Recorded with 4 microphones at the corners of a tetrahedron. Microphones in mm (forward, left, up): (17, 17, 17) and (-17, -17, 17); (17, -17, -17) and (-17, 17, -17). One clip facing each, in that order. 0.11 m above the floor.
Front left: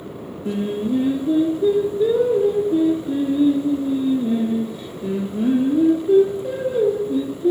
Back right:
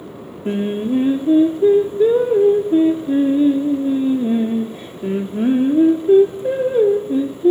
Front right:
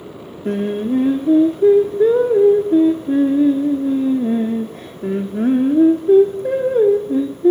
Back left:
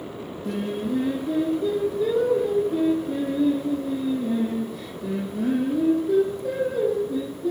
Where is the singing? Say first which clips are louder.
Back right 3 dB, front right 8 dB; 90° right, 1.0 m.